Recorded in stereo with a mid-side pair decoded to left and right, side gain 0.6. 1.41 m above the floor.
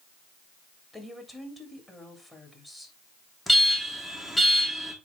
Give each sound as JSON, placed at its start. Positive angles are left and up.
{"t": 0.9, "sound": "a woman speaking", "azimuth_deg": 10, "distance_m": 3.5}
{"t": 3.5, "sound": "an alarm", "azimuth_deg": 10, "distance_m": 2.5}